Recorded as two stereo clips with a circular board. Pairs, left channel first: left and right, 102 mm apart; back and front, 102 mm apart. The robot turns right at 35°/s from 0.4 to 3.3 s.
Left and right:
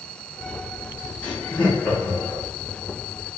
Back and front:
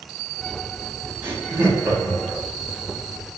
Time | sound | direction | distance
1.2 | laughter | 25° left | 1.0 m